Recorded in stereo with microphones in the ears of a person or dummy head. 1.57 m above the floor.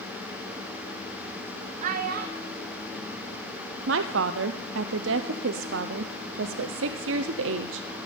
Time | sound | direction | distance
1.8 | a child speaking | 45° right (ahead or behind) | 0.7 m
3.9 | a woman speaking | 75° right (ahead or behind) | 0.6 m